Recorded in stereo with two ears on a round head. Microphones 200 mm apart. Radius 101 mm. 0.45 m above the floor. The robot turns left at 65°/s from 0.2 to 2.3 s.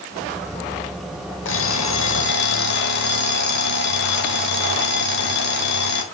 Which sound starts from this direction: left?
An alarm clock, at 1.4 s.